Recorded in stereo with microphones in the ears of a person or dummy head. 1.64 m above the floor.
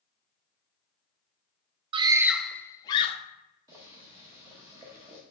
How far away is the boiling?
About 1.0 m.